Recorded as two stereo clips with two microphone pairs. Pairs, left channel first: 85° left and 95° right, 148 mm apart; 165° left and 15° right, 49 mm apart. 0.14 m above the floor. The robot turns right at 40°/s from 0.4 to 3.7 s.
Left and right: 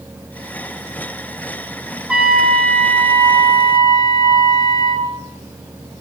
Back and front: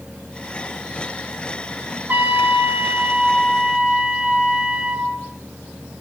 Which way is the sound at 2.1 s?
20° right.